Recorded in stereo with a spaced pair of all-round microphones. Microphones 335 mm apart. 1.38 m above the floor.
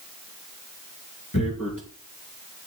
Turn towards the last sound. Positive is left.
turn(degrees=65)  # may be behind; listen again after turning